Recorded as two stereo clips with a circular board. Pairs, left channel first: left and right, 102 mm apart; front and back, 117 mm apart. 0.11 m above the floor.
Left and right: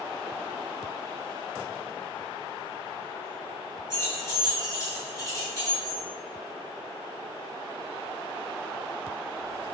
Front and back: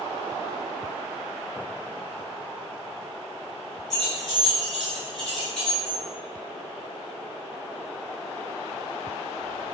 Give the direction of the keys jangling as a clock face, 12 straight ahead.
9 o'clock.